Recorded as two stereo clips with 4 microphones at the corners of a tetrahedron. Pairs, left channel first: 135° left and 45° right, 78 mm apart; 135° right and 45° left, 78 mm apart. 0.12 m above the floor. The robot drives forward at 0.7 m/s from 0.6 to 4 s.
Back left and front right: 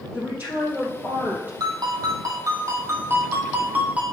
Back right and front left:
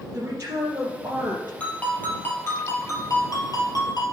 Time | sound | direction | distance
0.1 | a woman speaking | straight ahead | 2.5 m
1.6 | a ringtone | 65° right | 2 m